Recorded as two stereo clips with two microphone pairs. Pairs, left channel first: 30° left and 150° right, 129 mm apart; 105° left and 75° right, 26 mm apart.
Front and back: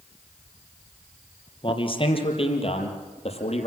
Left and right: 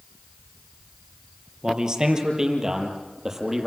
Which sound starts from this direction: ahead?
A man speaking, at 1.6 s.